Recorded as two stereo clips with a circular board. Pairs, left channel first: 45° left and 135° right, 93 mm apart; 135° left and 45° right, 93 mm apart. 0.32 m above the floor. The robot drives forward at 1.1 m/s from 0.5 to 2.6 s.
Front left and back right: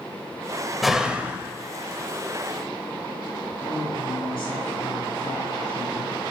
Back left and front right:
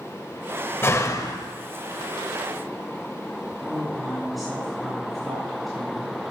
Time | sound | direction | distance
0.8 | a door slam | 135° left | 0.9 m
3.6 | a woman speaking | 45° left | 5 m